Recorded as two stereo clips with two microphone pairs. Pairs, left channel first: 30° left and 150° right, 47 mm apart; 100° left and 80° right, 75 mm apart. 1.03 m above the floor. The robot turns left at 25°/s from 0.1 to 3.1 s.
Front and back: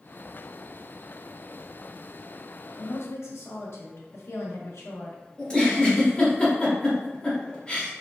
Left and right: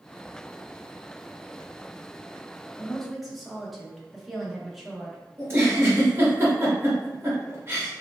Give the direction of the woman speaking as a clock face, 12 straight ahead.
11 o'clock.